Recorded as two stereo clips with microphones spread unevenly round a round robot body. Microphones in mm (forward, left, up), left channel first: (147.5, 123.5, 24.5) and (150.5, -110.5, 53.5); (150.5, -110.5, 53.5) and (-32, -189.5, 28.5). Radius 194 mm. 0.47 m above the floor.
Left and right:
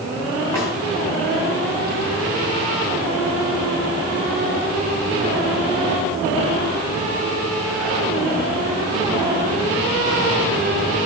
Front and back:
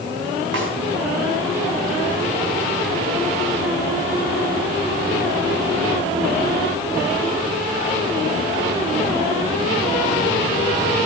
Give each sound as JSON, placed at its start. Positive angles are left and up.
{"t": 0.5, "sound": "a snare drum", "azimuth_deg": 175, "distance_m": 4.0}